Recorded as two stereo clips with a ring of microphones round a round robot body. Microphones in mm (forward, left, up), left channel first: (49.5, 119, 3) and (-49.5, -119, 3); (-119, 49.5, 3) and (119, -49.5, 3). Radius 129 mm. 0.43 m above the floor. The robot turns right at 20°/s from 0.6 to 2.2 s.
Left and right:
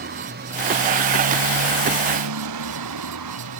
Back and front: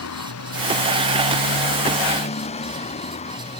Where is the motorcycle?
165° right; by 3.6 s 135° right.